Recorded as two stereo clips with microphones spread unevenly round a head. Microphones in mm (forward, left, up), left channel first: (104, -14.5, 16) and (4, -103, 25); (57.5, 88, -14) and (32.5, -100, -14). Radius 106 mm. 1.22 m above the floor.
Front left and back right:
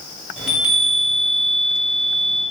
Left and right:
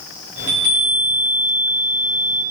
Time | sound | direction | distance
0.4 | a chime | 50° right | 1.4 m